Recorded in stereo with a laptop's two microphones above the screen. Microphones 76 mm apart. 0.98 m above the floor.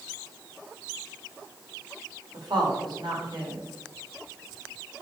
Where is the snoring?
I don't hear snoring.